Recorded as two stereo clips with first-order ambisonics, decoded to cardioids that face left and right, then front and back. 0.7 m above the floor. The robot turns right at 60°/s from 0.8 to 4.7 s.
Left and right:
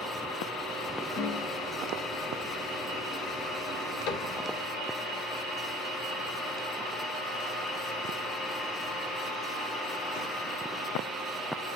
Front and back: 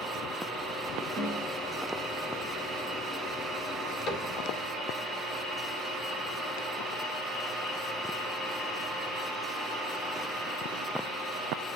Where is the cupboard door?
55° left, 2.5 m; by 4.4 s 75° left, 2.5 m.